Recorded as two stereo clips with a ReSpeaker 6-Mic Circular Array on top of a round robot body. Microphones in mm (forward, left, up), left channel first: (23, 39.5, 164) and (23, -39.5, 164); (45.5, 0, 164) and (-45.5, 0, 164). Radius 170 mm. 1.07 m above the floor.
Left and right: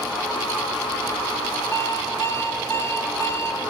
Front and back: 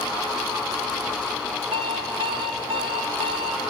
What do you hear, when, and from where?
1.7 s an alarm clock: 150° left, 2 m